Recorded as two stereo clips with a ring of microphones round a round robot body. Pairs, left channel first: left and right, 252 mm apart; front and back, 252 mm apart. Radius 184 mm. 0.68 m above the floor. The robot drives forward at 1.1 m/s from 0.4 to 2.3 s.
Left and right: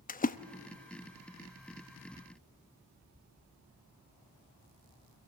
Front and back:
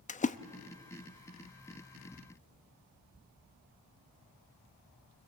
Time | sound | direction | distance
0.1 | a splash | 50° left | 0.8 m